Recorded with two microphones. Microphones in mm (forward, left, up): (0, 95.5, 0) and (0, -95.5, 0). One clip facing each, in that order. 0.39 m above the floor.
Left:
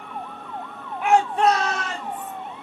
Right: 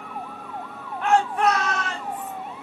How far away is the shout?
About 1.1 m.